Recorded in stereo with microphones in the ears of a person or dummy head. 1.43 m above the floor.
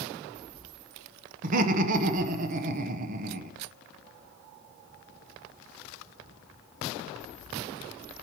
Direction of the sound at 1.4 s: 40° right (ahead or behind).